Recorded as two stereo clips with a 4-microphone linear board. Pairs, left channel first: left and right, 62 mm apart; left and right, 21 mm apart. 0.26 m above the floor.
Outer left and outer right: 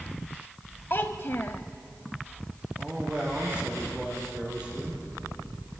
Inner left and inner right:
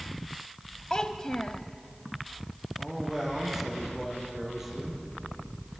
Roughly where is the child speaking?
Left.